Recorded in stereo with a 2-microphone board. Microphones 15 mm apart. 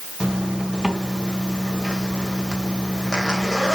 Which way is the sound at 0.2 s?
70° right (ahead or behind).